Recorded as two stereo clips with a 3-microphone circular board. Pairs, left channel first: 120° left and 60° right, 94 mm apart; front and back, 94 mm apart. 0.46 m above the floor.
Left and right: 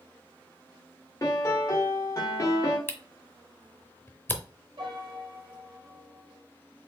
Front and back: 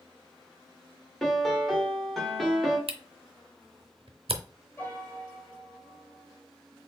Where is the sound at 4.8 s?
65° right, 2.5 m.